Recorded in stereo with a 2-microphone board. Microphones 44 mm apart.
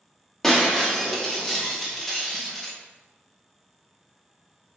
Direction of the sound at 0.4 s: 10° left (ahead or behind).